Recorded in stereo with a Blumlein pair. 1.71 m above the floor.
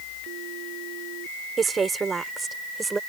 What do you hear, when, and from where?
1.6 s a woman speaking: 15° right; by 3.0 s 10° right